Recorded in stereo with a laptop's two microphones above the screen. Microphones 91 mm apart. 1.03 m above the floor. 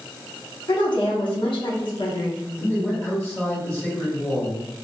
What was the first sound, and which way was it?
A woman speaking, 60° left (ahead or behind).